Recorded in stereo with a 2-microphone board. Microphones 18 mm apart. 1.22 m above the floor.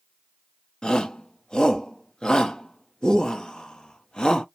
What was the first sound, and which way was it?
A shout, 50° left (ahead or behind).